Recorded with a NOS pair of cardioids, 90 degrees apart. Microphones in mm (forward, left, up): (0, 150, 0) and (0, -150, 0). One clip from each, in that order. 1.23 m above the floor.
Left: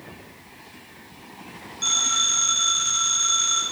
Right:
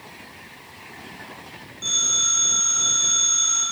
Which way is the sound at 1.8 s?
50° left.